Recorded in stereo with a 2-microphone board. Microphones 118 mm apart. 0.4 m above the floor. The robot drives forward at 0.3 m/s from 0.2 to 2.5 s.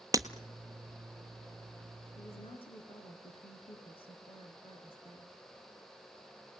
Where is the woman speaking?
55° left (ahead or behind), 4.5 m; by 5.4 s 50° left (ahead or behind), 4.5 m.